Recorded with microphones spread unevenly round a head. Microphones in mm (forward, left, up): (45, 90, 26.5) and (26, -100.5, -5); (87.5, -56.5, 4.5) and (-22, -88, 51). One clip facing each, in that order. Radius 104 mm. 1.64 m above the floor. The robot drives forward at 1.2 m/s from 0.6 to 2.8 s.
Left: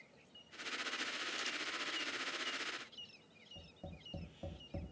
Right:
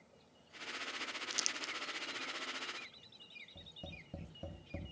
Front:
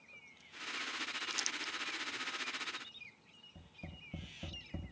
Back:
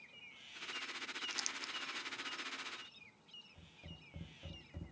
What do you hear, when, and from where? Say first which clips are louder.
1.3 s crumpling: left 1 dB, front 4 dB; 65° right, 0.5 m; by 1.7 s 135° right, 0.6 m
3.5 s tapping: even, front 6 dB; 20° right, 5 m